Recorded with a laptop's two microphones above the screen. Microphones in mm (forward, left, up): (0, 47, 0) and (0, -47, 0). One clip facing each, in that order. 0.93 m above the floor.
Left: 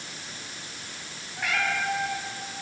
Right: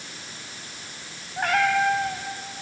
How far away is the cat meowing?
About 3.5 m.